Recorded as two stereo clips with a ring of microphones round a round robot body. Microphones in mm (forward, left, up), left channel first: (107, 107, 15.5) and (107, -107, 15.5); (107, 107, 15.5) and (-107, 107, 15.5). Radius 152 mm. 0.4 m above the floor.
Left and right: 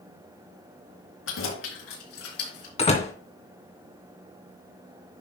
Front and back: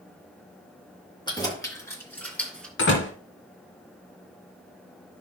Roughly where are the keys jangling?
Left.